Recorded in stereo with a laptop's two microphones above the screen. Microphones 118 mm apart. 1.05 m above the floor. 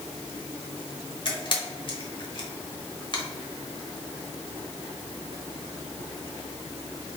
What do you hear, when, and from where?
1.2 s a camera shutter: 45° left (ahead or behind), 1.0 m